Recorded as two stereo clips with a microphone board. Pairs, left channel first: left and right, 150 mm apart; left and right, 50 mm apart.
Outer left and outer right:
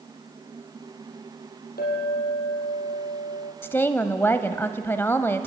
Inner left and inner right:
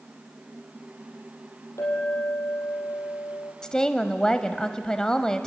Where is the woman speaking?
15° left (ahead or behind), 0.9 m.